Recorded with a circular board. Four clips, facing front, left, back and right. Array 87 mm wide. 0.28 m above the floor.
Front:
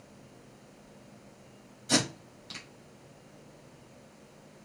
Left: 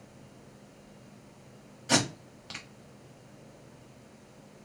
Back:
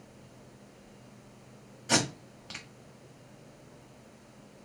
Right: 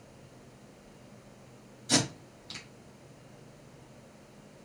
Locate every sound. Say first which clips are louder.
1.9 s tape being pulled: left 2 dB, even; 125° left, 1.1 m